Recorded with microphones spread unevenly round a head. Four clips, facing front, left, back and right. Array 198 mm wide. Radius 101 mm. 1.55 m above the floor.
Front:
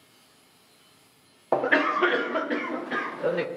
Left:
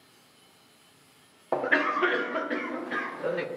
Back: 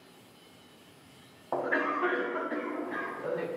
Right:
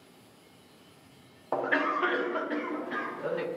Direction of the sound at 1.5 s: 20° left.